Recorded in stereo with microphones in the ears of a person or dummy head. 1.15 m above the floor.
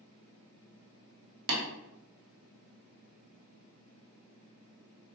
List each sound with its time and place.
1.5 s tapping: 70° right (ahead or behind), 1.1 m